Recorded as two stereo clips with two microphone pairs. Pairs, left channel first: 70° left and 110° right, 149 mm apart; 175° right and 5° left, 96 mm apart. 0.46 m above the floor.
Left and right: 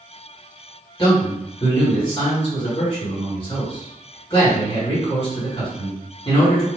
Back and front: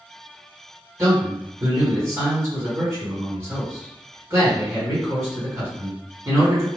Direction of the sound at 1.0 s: 45° left.